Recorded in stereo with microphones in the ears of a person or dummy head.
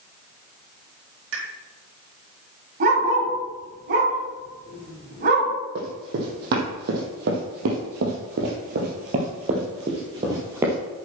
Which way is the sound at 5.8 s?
60° right (ahead or behind).